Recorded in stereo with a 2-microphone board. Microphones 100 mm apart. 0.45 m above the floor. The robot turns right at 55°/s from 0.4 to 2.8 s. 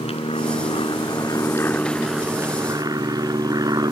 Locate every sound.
0.0 s an aircraft: 75° left (ahead or behind); by 3.9 s 40° right (ahead or behind)